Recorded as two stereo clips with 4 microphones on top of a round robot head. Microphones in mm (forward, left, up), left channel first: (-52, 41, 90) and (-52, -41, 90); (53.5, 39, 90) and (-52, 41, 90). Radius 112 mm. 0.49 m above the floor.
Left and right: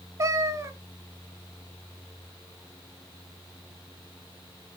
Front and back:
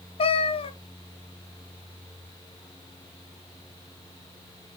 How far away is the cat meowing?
About 0.8 m.